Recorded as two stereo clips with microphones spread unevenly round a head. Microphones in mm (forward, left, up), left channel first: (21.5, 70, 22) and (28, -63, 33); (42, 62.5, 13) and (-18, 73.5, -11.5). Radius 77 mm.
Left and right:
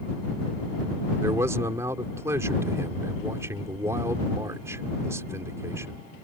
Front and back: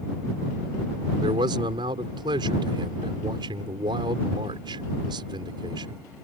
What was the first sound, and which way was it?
A man speaking, 160° right.